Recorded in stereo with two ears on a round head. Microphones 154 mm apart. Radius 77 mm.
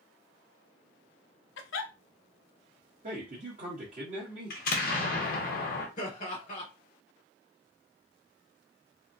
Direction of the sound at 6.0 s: 45° left (ahead or behind).